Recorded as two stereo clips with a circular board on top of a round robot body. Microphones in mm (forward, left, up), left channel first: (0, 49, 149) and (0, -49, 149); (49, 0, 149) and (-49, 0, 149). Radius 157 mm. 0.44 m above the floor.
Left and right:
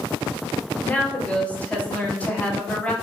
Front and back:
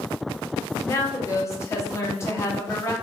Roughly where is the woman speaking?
Ahead left.